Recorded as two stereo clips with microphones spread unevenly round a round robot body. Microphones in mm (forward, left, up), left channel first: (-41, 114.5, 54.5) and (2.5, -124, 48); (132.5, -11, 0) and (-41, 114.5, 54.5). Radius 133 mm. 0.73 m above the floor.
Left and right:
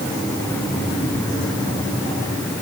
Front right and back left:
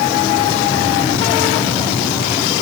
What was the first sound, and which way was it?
Only background noise.